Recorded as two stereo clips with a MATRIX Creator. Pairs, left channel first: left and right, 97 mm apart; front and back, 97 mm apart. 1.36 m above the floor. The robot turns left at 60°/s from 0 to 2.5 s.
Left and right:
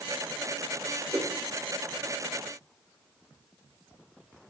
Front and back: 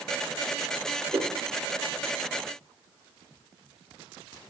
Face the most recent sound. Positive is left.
turn(degrees=135)